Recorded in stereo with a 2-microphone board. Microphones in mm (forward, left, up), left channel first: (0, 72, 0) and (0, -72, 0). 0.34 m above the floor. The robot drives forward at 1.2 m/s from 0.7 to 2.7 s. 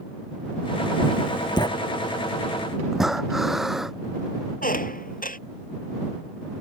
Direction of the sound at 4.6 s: 80° left.